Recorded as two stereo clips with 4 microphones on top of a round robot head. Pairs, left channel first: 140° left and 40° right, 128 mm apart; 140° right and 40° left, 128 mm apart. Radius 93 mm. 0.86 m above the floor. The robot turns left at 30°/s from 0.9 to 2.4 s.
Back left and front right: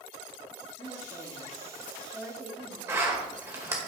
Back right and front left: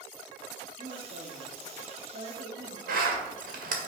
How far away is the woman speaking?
About 1.9 m.